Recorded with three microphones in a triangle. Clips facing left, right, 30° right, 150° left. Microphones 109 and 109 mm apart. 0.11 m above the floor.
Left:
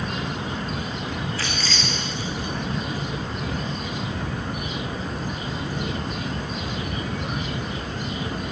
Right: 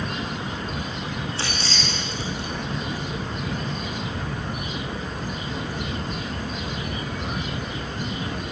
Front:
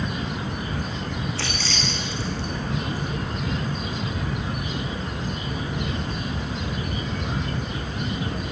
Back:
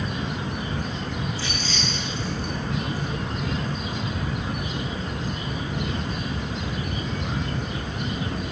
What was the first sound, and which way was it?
Keys jangling, 30° right.